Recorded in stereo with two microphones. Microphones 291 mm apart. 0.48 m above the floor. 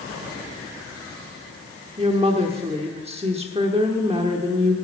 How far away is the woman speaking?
About 0.9 m.